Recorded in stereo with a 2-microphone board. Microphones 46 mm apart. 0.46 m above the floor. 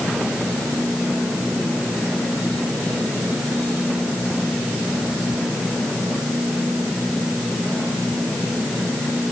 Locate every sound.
Only background noise.